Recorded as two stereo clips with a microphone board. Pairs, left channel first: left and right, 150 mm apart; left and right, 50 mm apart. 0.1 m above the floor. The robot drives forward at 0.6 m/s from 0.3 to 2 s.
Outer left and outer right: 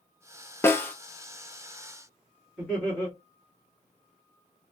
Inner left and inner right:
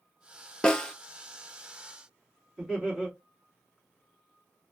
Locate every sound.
0.6 s a snare drum: 15° left (ahead or behind), 0.5 m
2.6 s laughter: 5° left (ahead or behind), 1.9 m